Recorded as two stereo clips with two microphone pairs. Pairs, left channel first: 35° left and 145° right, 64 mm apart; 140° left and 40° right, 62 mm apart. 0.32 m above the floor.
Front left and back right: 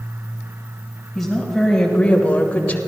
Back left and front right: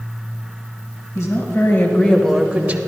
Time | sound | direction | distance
1.1 | a woman speaking | 125° left | 2 m